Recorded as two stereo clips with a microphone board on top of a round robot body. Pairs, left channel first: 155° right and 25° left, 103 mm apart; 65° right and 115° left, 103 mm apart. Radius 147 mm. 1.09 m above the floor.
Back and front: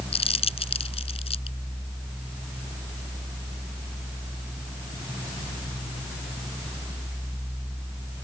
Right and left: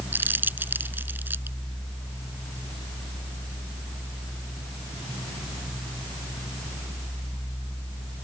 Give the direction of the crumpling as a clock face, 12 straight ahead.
6 o'clock.